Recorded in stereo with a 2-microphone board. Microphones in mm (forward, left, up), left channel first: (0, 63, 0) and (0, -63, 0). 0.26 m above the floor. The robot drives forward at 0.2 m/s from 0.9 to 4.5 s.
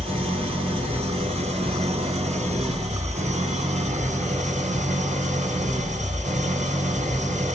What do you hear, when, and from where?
0.0 s an engine running: 50° right (ahead or behind), 1.7 m; by 7.5 s 75° right (ahead or behind), 1.4 m